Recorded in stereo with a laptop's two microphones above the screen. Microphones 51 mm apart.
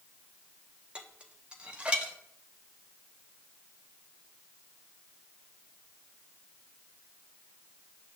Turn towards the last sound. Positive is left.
turn(degrees=-20)  # may be behind; listen again after turning